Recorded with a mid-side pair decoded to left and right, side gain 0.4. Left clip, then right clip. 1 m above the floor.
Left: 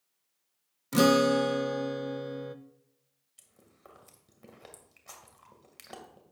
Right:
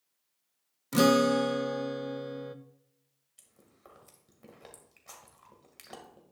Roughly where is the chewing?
Ahead.